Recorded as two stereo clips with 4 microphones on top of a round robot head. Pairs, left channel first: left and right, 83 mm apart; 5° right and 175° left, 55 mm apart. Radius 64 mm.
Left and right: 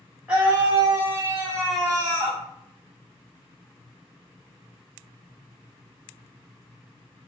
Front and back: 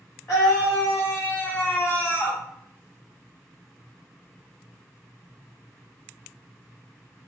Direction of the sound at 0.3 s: 10° right.